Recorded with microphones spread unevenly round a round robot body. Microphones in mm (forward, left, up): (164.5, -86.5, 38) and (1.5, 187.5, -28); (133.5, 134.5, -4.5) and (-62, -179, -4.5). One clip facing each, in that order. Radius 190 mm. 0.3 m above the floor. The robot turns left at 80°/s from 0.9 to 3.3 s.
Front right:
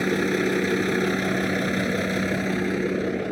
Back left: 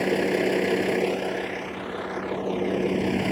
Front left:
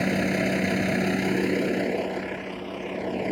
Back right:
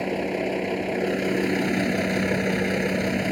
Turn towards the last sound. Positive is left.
turn(degrees=180)